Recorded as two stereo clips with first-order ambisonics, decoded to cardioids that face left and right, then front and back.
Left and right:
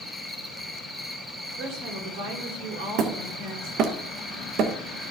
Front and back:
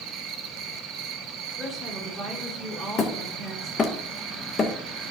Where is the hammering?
60° right, 1.0 m.